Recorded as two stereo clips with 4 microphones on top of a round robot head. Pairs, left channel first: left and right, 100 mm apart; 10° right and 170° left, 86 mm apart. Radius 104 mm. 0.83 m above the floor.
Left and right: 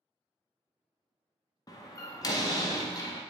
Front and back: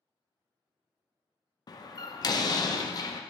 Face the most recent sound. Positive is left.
turn(degrees=35)